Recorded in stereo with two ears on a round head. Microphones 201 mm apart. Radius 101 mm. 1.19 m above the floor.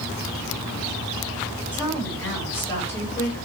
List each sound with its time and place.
1.7 s a woman speaking: 5° left (ahead or behind), 7.5 m; by 3.5 s 15° left (ahead or behind), 6.5 m